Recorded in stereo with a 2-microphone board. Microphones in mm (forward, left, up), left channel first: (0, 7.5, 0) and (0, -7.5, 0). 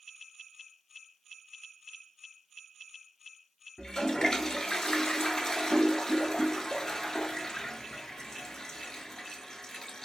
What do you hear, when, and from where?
3.8 s a toilet flushing: 40° left (ahead or behind), 0.6 m